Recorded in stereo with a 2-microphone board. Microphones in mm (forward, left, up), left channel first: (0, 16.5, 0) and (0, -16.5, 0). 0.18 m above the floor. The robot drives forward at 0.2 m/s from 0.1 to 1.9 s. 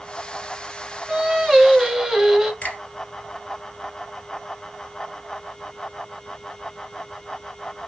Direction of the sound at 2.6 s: 40° left (ahead or behind).